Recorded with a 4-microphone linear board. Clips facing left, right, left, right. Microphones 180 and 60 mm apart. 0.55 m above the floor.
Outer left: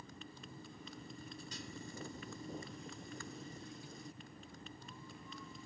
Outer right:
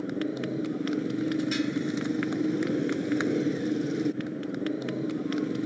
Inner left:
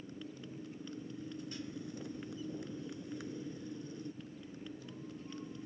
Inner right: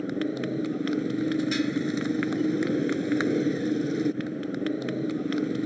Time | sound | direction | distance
0.0 | a motorcycle | 80° right | ?